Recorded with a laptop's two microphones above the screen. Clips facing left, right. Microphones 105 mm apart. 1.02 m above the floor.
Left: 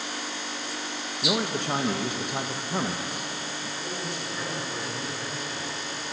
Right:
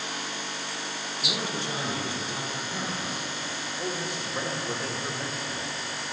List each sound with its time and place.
1.2 s a man speaking: 60° left (ahead or behind), 0.6 m
3.8 s a man speaking: 70° right (ahead or behind), 1.8 m